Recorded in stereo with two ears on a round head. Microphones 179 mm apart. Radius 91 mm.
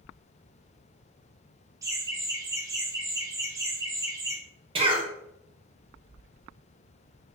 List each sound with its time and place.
1.8 s laughter: 15° right (ahead or behind), 0.5 m
4.8 s a cough: 25° right (ahead or behind), 0.6 m